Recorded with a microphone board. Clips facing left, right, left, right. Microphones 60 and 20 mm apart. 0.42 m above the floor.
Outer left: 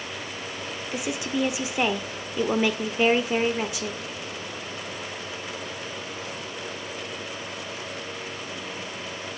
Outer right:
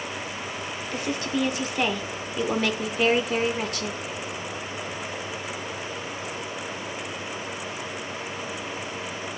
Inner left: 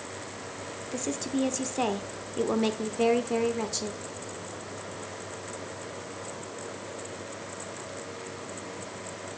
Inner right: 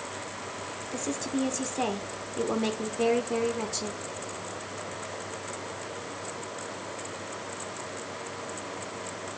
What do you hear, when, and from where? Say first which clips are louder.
0.9 s a woman speaking: even, inner left 1 dB; 10° left (ahead or behind), 0.9 m